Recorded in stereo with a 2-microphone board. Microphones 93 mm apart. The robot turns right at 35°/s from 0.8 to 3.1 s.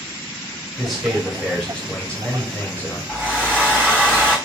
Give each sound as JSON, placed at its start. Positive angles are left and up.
{"t": 0.8, "sound": "a man speaking", "side_deg": -5, "distance_m": 1.0}
{"t": 3.1, "sound": "a hair dryer", "side_deg": -30, "distance_m": 2.5}